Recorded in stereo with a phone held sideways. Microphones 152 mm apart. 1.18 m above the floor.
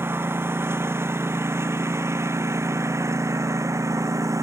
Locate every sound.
0.0 s a lawn mower: 15° right (ahead or behind); by 4.4 s 20° right (ahead or behind)